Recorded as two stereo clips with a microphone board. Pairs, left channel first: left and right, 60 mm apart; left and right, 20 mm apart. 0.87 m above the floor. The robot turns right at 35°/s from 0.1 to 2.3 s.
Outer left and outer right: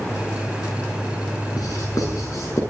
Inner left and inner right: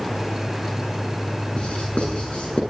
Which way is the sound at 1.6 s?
90° left.